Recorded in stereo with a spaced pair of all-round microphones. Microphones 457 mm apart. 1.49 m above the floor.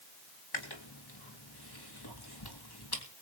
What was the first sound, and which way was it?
Chewing, 55° left (ahead or behind).